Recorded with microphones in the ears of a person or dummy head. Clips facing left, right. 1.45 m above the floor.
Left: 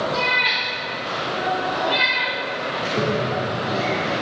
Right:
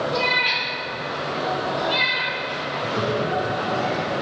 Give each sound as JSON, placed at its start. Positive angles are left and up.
{"t": 0.1, "sound": "a cat meowing", "side_deg": 15, "distance_m": 1.1}
{"t": 2.8, "sound": "a toilet flushing", "side_deg": 25, "distance_m": 0.9}